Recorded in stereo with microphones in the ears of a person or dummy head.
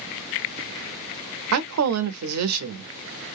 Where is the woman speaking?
85° right, 0.6 m.